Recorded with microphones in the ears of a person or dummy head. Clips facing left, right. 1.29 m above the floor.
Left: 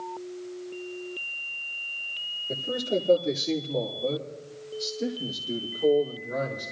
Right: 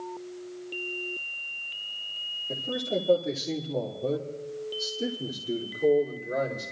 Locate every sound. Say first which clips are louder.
2.5 s a man speaking: left 2 dB; 10° left (ahead or behind), 2.5 m; by 6.7 s 35° right (ahead or behind), 4 m